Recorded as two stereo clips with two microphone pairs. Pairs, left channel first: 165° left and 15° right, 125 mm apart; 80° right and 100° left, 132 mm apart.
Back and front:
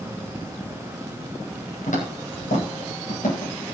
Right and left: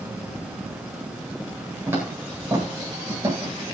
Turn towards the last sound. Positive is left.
turn(degrees=165)